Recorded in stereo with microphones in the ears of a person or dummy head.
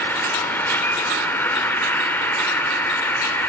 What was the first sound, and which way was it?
An insect, 15° left (ahead or behind).